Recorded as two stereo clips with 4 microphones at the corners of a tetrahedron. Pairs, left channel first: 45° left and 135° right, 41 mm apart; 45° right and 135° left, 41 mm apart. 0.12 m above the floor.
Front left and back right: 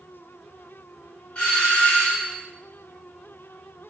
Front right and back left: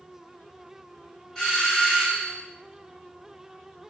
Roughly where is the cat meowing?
I don't hear a cat meowing.